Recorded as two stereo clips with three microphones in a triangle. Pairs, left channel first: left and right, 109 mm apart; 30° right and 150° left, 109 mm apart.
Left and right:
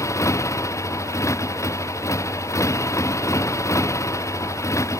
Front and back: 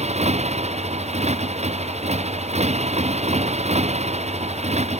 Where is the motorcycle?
155° left.